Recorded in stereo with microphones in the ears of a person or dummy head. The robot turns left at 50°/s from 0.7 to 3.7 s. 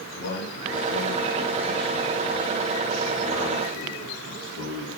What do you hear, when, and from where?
0.1 s a man speaking: 55° left, 3 m; by 4.9 s 95° right, 3 m